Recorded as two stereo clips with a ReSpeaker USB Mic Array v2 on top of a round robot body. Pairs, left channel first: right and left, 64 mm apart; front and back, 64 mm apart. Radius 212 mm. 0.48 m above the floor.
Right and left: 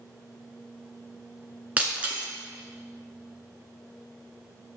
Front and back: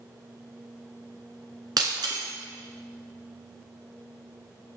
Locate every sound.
1.8 s breaking glass: 160° left, 1.6 m